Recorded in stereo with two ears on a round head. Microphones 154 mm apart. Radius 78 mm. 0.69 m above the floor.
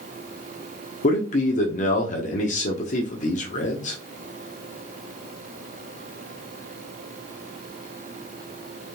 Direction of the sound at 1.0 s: 45° left (ahead or behind).